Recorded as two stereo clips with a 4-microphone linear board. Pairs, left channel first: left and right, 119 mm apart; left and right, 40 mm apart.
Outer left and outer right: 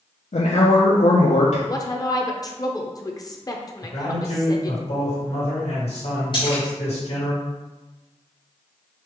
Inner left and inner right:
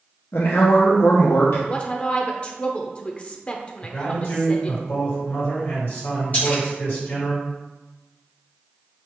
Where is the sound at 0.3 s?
75° left (ahead or behind), 0.6 m.